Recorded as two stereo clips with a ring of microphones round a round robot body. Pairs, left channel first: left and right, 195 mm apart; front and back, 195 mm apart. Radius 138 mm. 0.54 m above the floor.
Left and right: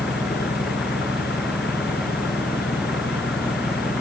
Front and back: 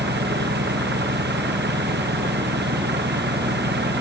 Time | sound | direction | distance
0.0 | an engine running | 150° left | ?